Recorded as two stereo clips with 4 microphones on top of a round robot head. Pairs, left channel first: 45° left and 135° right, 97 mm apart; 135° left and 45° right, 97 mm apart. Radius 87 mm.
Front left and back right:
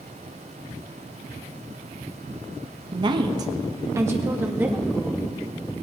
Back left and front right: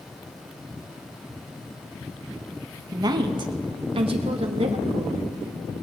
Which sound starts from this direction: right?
A woman speaking, at 2.9 s.